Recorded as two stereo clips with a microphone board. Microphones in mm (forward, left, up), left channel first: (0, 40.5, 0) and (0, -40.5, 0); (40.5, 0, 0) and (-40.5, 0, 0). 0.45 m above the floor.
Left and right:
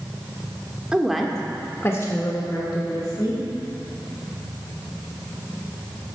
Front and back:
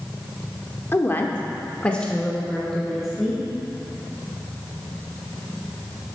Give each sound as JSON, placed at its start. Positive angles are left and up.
{"t": 0.9, "sound": "a woman speaking", "azimuth_deg": -25, "distance_m": 0.9}